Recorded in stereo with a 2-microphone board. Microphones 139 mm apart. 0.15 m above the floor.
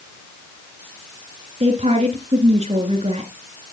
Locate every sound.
1.6 s a woman speaking: 50° right (ahead or behind), 2.5 m